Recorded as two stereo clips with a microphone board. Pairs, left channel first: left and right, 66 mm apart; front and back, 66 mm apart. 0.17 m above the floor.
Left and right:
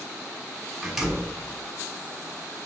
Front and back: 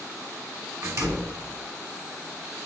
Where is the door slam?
170° right, 1.5 m.